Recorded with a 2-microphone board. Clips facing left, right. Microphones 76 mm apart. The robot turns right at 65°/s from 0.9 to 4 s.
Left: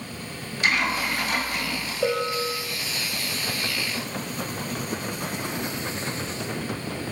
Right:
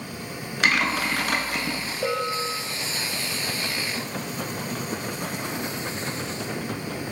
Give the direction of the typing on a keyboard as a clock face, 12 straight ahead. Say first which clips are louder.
Right 1 dB; 3 o'clock.